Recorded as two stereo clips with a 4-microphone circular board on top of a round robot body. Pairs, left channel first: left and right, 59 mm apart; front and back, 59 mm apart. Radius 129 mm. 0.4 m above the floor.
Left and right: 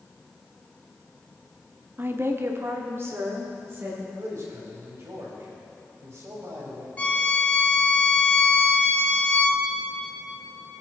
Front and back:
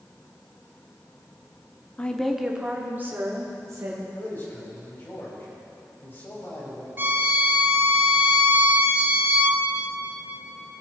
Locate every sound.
2.0 s a woman speaking: 65° right, 1.0 m; by 4.1 s 140° right, 2.5 m
4.2 s a man speaking: 55° right, 3 m
7.0 s a violin: 145° left, 1.3 m